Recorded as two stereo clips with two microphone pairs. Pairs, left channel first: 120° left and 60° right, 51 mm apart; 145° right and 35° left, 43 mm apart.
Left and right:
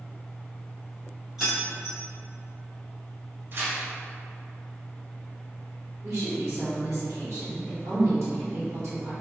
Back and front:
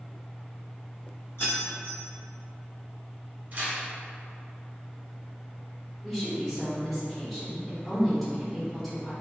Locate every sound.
1.4 s keys jangling: 140° right, 1.1 m
3.5 s tearing paper: 20° right, 1.3 m
6.0 s a woman speaking: 60° right, 1.1 m